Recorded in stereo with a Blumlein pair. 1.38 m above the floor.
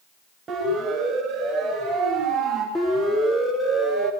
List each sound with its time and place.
0.5 s a siren: 15° right, 10 m; by 2.6 s 30° right, 11 m
2.8 s a siren: 5° left, 5 m